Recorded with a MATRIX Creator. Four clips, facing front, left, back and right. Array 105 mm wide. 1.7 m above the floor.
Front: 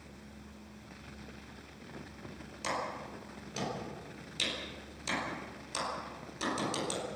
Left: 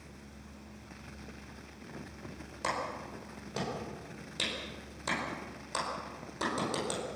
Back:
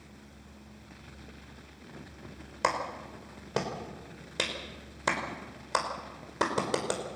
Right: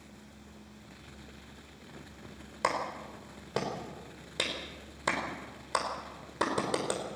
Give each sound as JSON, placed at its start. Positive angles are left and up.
{"t": 2.6, "sound": "a clap", "azimuth_deg": -155, "distance_m": 5.0}